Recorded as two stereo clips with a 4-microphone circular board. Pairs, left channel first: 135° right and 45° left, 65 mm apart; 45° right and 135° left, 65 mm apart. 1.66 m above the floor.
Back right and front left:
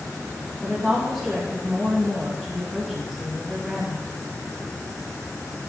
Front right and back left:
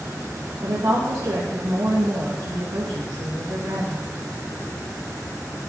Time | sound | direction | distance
0.6 | a woman speaking | 140° left | 2.5 m